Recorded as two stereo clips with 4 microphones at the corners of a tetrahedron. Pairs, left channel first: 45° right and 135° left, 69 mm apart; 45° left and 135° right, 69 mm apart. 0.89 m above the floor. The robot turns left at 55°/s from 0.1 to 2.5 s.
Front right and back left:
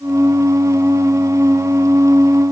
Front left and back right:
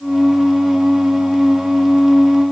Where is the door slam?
No door slam in this recording.